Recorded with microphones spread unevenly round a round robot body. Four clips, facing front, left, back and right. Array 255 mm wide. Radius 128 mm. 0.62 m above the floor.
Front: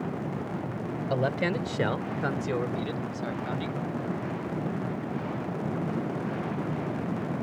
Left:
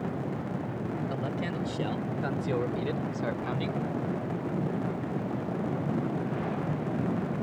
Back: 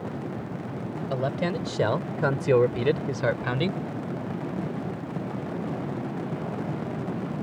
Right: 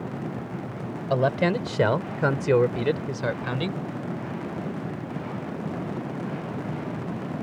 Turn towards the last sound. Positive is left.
turn(degrees=-155)